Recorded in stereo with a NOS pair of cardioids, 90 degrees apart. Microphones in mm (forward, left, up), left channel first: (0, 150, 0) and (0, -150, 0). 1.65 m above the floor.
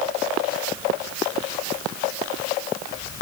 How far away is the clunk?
I don't hear a clunk.